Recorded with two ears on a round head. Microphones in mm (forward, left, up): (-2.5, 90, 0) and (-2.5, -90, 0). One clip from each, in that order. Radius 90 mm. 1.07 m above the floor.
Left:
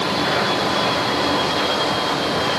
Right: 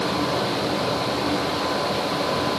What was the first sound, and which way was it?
Only background noise.